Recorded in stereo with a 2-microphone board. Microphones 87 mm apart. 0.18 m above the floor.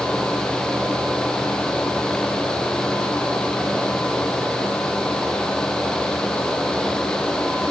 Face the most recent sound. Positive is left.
No sound to turn to.